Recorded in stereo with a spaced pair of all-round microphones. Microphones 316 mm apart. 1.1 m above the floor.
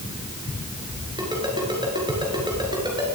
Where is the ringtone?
15° right (ahead or behind), 7.5 m.